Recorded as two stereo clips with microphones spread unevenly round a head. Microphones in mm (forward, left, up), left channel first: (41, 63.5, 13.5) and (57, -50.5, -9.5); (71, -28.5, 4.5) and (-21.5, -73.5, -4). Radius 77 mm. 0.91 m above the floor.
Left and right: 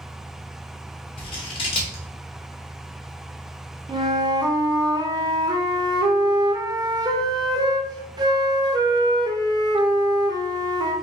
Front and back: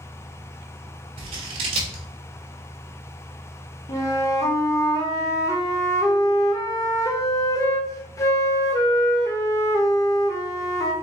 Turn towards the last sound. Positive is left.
turn(degrees=-25)